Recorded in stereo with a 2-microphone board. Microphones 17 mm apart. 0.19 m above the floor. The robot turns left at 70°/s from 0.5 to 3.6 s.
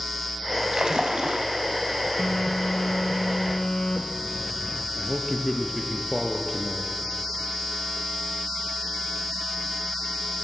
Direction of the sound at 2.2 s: 115° left.